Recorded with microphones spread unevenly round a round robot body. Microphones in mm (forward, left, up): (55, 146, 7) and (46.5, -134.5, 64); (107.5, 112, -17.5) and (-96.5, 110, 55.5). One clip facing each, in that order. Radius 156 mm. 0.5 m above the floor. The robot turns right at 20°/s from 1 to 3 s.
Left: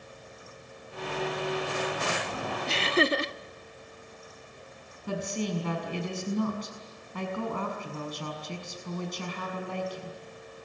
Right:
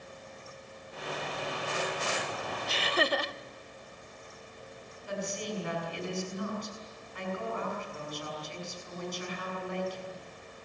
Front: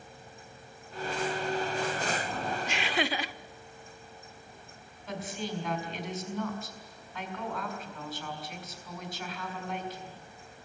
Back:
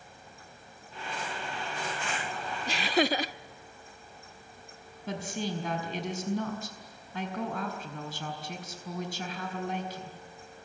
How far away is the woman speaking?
About 5.5 m.